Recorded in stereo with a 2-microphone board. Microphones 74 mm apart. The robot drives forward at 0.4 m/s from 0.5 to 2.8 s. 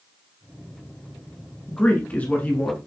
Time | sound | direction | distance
1.7 | a man speaking | 20° left (ahead or behind) | 1.2 m